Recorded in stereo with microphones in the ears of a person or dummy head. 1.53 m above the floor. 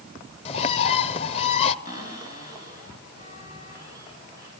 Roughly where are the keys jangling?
I don't hear keys jangling.